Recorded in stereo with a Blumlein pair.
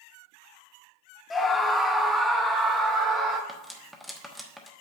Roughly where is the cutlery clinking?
Ahead.